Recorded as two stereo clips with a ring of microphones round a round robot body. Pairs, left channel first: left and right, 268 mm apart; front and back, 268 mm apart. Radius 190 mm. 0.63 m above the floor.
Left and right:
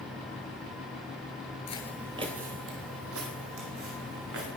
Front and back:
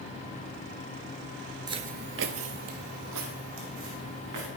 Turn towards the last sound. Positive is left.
turn(degrees=-135)